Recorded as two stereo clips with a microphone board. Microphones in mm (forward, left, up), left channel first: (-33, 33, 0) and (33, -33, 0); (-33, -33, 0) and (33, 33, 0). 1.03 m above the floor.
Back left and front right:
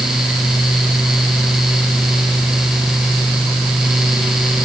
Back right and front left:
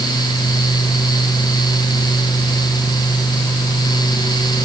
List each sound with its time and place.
Only background noise.